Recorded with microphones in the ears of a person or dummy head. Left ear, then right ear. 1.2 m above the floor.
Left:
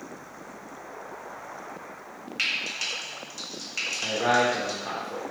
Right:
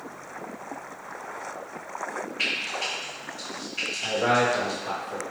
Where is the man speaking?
50° left (ahead or behind), 0.7 m.